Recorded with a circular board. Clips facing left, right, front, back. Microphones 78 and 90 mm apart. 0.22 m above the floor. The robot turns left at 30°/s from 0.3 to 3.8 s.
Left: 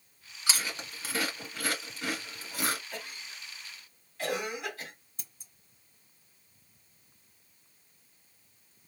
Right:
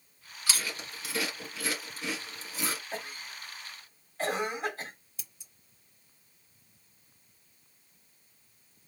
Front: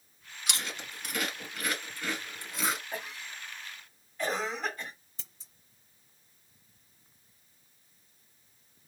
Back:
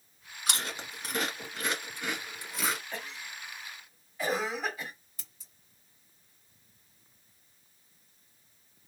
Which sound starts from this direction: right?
A cough, at 2.9 s.